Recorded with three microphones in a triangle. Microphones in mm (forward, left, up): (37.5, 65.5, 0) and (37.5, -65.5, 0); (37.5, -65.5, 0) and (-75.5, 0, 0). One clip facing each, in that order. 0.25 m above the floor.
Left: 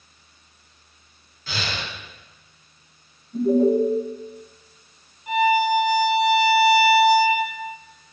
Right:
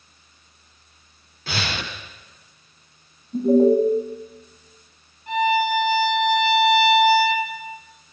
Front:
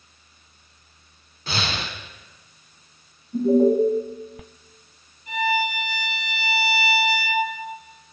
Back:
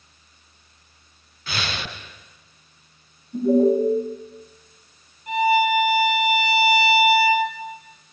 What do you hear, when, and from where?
1.5 s breathing: 85° right, 0.6 m
3.3 s an alarm: 120° right, 1.5 m
5.3 s a violin: 170° left, 2 m